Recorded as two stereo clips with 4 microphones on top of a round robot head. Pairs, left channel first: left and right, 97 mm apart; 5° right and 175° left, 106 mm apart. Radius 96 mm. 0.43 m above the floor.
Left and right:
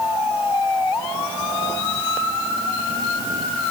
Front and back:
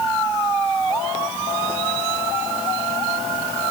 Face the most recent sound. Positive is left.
No sound to turn to.